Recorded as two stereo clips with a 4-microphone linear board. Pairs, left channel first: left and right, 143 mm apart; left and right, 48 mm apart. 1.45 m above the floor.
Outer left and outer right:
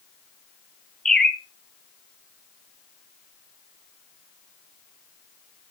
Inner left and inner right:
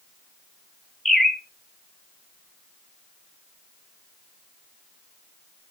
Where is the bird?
5° left (ahead or behind), 1.3 m.